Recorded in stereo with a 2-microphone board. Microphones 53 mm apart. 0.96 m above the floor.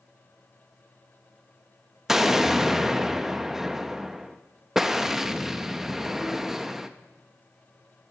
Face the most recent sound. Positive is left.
turn(degrees=-10)  # may be behind; listen again after turning